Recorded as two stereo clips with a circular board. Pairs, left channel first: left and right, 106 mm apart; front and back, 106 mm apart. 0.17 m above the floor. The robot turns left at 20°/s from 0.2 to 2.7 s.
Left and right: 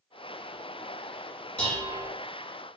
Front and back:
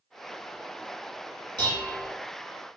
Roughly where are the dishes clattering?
Behind.